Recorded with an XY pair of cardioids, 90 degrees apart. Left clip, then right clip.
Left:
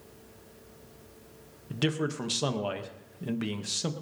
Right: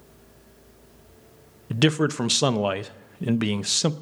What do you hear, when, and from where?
1.7 s a man speaking: 65° right, 0.7 m